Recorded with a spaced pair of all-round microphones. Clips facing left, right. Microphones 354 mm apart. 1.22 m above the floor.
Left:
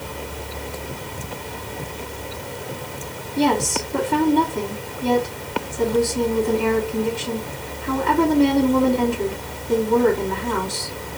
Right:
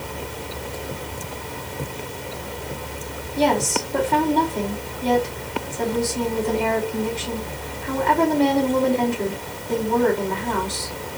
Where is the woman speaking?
15° left (ahead or behind), 2.5 m.